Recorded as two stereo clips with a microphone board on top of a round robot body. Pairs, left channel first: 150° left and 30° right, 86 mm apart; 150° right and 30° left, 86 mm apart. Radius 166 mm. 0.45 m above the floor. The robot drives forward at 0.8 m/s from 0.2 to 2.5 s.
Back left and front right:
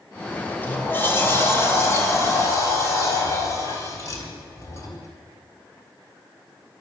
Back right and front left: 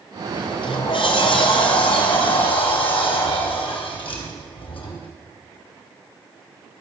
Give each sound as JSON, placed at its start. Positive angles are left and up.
{"t": 0.3, "sound": "a sliding door", "azimuth_deg": -135, "distance_m": 2.5}